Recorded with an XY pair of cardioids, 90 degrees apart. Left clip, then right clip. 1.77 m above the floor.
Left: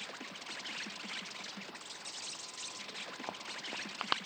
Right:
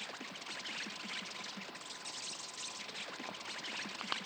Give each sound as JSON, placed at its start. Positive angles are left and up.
{"t": 0.0, "sound": "an insect", "azimuth_deg": 10, "distance_m": 0.7}